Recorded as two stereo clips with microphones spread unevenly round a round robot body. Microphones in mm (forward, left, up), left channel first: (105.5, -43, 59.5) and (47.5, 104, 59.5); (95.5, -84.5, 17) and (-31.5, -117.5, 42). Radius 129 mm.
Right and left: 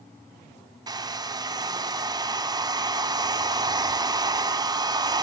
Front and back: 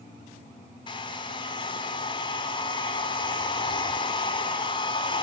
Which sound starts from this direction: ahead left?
A hair dryer, at 0.9 s.